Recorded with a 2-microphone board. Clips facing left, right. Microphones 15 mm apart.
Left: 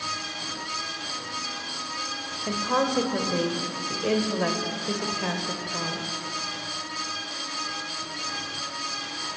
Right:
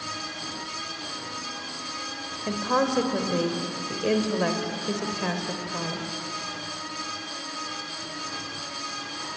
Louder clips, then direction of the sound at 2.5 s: Right 1 dB; 5° right (ahead or behind).